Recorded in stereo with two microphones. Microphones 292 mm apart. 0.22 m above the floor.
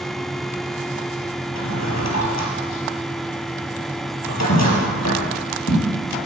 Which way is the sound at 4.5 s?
50° left (ahead or behind).